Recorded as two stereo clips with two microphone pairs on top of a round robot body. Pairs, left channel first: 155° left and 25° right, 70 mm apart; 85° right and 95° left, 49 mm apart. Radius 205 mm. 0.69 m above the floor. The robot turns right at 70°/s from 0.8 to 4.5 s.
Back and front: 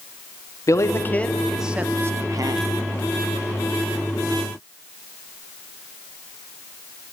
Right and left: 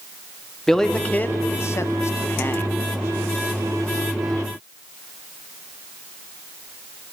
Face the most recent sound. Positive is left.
turn(degrees=95)